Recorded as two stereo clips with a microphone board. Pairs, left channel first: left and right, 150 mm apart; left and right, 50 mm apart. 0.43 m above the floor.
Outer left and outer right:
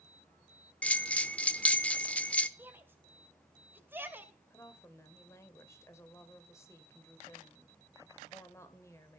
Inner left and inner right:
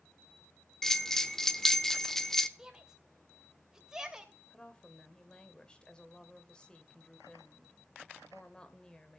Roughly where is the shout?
Centre.